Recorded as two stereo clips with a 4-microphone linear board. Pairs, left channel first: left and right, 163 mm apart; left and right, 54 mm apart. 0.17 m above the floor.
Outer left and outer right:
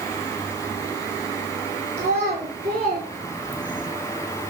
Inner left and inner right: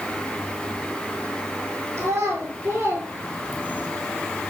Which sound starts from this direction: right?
A child speaking, at 2.0 s.